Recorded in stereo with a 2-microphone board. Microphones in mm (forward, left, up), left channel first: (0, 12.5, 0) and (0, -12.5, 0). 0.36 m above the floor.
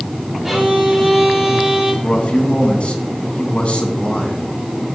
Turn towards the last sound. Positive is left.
turn(degrees=45)  # may be behind; listen again after turning